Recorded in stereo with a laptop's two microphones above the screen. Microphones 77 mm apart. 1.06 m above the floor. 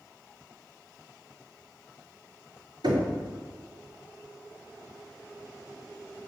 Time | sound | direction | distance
2.8 | knocking | 80° right | 2.5 m